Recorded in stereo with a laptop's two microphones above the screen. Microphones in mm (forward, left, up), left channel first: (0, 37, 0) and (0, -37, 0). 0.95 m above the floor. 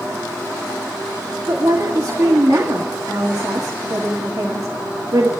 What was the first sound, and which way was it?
A woman speaking, 50° right (ahead or behind).